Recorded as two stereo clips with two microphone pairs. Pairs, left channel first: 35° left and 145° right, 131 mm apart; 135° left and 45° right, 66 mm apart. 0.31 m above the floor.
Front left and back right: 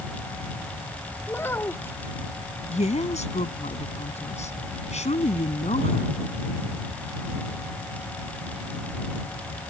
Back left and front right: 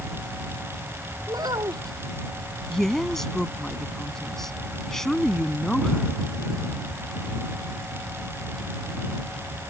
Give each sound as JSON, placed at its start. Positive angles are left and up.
{"t": 1.3, "sound": "a child speaking", "azimuth_deg": -35}
{"t": 2.7, "sound": "a woman speaking", "azimuth_deg": 50}